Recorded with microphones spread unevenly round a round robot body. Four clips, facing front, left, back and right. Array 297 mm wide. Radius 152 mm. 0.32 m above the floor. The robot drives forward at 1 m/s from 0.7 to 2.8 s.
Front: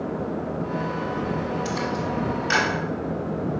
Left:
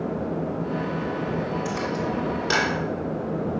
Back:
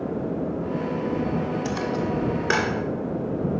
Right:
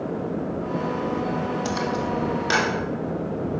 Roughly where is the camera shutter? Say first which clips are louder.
Right 2 dB, back 1 dB; behind right.